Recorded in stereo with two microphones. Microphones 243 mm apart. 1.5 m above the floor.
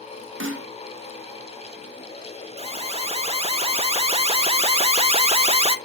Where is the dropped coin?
No dropped coin in this recording.